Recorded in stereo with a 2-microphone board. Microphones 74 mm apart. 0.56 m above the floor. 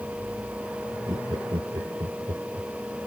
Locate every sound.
1.1 s laughter: 60° right (ahead or behind)